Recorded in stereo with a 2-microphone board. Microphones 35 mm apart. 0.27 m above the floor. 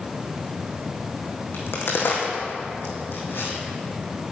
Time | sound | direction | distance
1.5 | a crack | 80° left | 2 m